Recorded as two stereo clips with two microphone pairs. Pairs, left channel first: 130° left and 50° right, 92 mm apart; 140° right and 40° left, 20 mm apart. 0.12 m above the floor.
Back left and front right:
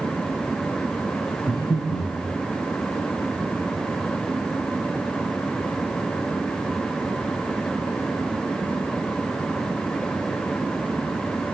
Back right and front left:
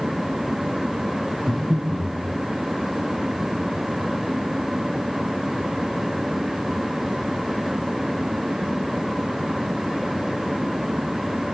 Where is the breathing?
160° left, 4.5 m.